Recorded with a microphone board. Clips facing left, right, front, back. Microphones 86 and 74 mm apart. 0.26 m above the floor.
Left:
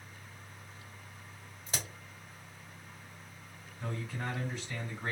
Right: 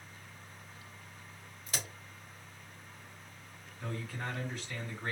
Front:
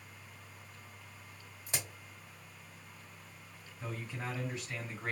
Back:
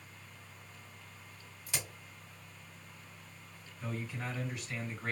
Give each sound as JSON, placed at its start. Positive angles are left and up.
{"t": 1.7, "sound": "a crack", "azimuth_deg": 40, "distance_m": 1.6}
{"t": 3.8, "sound": "a man speaking", "azimuth_deg": 35, "distance_m": 1.8}